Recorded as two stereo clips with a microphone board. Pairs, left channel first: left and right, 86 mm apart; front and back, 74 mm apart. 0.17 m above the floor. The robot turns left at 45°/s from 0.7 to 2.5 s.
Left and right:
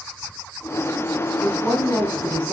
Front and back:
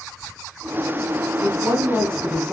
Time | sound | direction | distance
1.4 | a woman speaking | straight behind | 1.3 m